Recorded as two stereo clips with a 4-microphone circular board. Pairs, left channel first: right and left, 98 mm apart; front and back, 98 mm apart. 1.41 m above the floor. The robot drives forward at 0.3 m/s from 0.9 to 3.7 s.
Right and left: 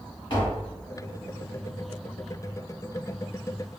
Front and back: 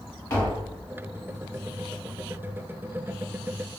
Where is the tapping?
60° right, 1.6 m.